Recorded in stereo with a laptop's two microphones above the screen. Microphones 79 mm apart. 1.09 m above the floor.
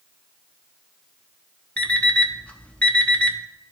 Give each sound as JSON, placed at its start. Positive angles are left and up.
{"t": 1.8, "sound": "an alarm clock", "side_deg": 15, "distance_m": 0.6}